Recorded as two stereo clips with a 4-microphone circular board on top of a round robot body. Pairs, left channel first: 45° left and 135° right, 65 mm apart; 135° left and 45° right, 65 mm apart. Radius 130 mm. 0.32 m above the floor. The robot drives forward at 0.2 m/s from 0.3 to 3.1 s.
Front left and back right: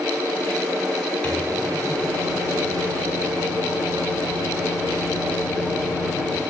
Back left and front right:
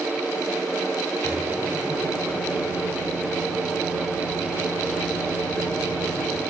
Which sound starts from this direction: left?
A microwave, at 1.2 s.